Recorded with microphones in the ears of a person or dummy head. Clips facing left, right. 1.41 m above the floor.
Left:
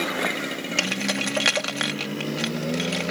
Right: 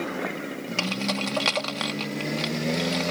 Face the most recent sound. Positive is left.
turn(degrees=25)  # may be behind; listen again after turning